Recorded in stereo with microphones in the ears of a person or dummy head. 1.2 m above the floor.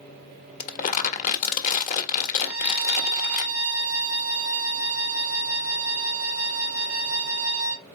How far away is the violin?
About 1.4 m.